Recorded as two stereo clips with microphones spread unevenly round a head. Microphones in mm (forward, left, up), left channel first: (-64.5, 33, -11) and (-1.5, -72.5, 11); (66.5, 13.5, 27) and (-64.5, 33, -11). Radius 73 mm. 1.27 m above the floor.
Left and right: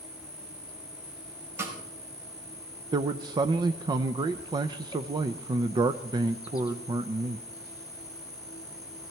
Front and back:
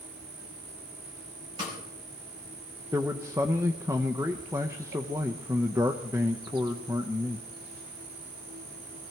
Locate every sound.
0.0 s an insect: 175° right, 2 m
1.6 s a snare drum: 125° right, 5 m
2.9 s a man speaking: 110° right, 0.7 m